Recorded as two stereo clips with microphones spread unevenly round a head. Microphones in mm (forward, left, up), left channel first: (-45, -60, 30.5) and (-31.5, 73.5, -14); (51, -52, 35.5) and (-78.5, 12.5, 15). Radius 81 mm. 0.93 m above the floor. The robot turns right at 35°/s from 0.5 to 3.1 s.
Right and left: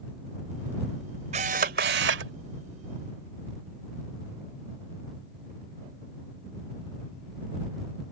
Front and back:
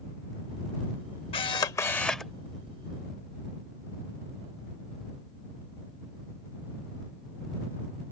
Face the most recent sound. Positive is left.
turn(degrees=90)